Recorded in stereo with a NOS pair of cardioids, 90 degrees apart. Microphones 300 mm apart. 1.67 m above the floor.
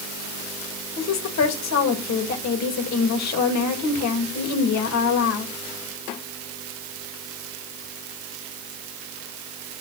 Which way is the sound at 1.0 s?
65° left.